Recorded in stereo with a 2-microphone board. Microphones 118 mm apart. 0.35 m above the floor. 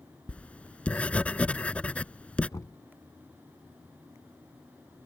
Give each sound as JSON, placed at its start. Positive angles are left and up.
{"t": 0.3, "sound": "writing", "side_deg": 10}
{"t": 2.5, "sound": "knocking", "side_deg": 30}